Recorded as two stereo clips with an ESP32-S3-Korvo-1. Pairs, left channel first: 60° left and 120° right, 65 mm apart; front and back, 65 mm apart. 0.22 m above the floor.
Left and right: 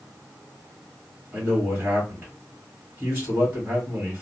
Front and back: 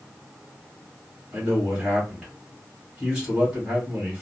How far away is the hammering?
I don't hear hammering.